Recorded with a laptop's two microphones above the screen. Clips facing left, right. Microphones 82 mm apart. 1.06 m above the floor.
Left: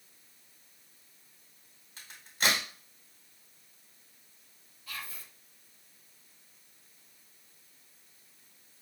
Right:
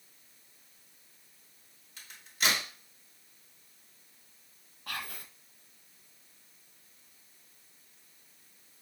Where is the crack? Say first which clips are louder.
Left 1 dB; 40° left (ahead or behind), 1.9 m.